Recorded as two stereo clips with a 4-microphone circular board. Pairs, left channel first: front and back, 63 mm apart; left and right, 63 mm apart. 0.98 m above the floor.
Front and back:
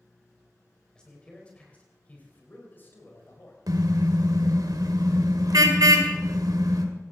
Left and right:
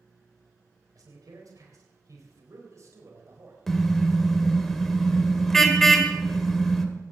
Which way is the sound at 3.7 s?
175° left.